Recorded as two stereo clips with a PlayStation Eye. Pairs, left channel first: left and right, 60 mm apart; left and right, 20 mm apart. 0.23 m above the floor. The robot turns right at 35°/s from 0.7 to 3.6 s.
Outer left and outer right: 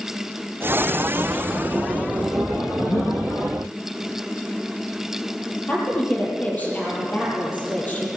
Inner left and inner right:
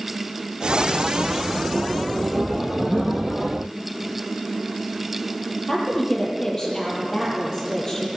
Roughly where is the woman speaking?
Left.